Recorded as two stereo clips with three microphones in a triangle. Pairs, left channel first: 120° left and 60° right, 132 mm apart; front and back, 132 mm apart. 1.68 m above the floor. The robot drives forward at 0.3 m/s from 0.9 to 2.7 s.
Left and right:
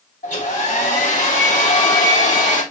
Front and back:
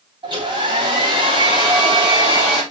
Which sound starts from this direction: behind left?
A hair dryer, at 0.2 s.